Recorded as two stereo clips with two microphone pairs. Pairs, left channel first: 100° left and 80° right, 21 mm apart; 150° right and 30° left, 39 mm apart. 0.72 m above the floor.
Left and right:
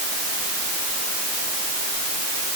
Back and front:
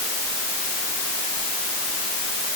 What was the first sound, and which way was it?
Only background noise.